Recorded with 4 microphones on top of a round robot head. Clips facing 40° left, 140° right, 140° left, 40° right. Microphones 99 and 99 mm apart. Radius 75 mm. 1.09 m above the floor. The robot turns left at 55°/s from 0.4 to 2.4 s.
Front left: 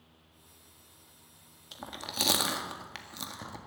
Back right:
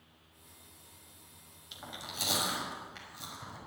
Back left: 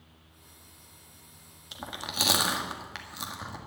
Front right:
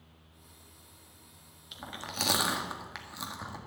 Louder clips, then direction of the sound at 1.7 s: Front left 4 dB, back left 3 dB; 90° left.